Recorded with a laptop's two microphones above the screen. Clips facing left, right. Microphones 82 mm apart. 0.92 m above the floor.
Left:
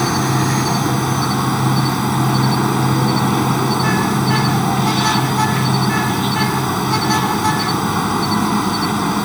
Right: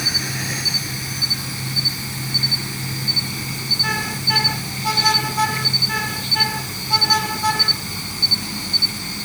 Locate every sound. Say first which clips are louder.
0.0 s an insect: left 12 dB; 65° left (ahead or behind)